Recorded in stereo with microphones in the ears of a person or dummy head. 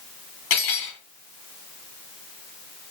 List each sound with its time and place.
0.5 s cutlery clinking: 40° left (ahead or behind), 1.1 m